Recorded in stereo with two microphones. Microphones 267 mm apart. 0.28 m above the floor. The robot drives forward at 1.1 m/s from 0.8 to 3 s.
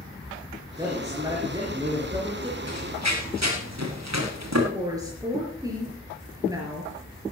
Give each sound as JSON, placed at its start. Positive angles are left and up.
{"t": 0.8, "sound": "a man speaking", "side_deg": -10, "distance_m": 4.5}
{"t": 2.7, "sound": "running footsteps", "side_deg": -75, "distance_m": 5.0}
{"t": 4.7, "sound": "a woman speaking", "side_deg": -15, "distance_m": 4.5}